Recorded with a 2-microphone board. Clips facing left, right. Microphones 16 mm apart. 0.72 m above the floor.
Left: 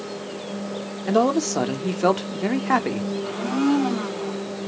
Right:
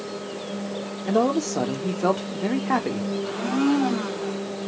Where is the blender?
15° right (ahead or behind), 2.5 m.